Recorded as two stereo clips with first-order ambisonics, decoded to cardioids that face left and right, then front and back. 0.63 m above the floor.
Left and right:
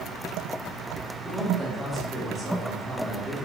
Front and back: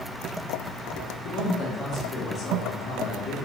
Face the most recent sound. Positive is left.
turn(degrees=-10)